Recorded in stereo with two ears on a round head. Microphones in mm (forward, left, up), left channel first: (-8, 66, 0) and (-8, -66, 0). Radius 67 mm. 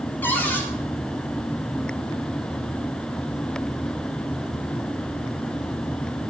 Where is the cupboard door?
15° left (ahead or behind), 7 m.